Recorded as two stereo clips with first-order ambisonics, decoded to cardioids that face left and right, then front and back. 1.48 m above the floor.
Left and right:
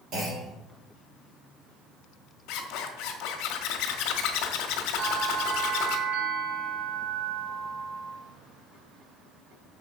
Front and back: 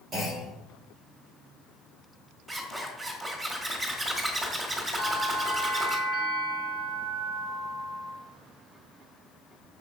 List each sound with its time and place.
0.1 s a clunk: 125° right, 4.5 m
2.5 s a zipper: 105° left, 1.8 m
5.0 s a bell: 90° right, 4 m